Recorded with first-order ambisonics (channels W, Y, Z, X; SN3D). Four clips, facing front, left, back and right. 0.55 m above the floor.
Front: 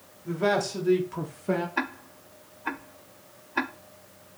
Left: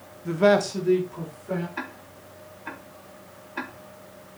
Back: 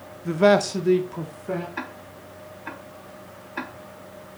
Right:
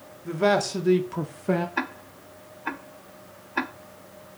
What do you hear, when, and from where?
0.2 s a man speaking: 160° left, 0.8 m; by 1.7 s 75° right, 0.9 m
1.8 s ticking: 55° right, 0.5 m